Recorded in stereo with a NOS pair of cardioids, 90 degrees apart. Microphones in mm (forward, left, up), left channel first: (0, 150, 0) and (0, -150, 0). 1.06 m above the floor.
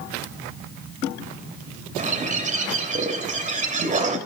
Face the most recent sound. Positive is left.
turn(degrees=-25)